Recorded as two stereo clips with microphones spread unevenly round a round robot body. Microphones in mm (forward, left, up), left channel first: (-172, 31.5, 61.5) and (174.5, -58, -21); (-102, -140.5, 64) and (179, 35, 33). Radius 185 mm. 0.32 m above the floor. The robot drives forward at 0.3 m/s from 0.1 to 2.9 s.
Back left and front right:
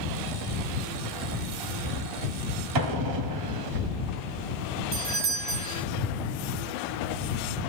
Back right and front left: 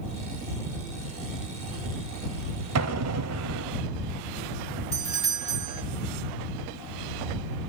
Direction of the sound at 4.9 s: 20° right.